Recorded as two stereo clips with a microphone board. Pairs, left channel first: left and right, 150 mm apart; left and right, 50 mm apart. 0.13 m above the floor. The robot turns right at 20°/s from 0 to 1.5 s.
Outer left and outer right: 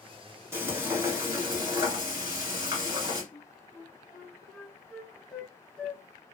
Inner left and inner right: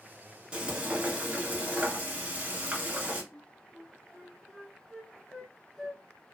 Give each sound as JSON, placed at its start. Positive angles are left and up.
{"t": 0.5, "sound": "frying", "side_deg": -20, "distance_m": 1.3}
{"t": 3.3, "sound": "a flute", "side_deg": 5, "distance_m": 0.6}